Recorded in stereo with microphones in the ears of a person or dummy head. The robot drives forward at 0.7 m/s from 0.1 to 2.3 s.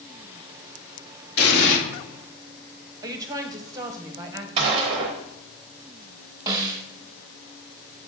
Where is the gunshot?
25° right (ahead or behind), 0.6 m.